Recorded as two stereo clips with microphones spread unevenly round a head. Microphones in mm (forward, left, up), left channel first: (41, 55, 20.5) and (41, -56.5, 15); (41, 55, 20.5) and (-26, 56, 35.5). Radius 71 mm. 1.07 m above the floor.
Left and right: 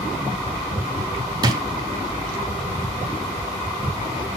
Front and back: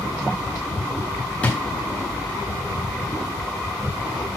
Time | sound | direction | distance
1.4 | a drawer | 90° right | 0.6 m